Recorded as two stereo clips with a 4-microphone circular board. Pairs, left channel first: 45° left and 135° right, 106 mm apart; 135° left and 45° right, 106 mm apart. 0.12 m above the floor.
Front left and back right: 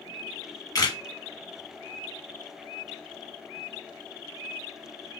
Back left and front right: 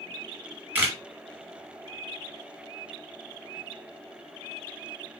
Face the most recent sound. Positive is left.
turn(degrees=15)